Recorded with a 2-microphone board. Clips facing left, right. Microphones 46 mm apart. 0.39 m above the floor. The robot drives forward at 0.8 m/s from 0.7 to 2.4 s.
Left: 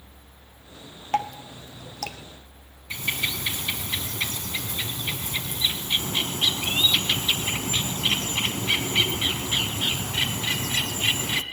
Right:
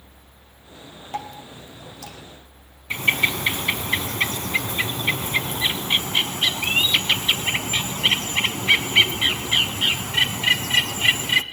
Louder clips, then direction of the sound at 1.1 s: Left 6 dB; 60° left (ahead or behind).